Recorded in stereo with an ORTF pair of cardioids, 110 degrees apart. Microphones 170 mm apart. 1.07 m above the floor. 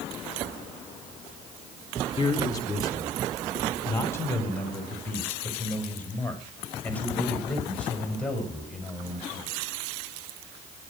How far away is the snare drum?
I don't hear a snare drum.